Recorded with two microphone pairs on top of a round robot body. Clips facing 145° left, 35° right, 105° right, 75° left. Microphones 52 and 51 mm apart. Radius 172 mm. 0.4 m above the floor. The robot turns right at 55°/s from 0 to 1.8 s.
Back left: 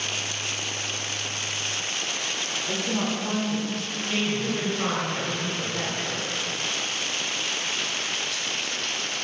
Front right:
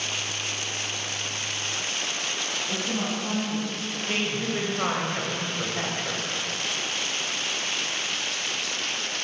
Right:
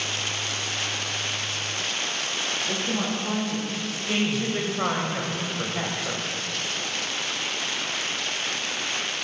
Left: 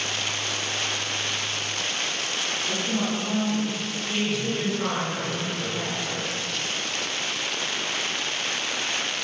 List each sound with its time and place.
2.7 s a woman speaking: 160° right, 2 m
4.1 s a woman speaking: 95° right, 2 m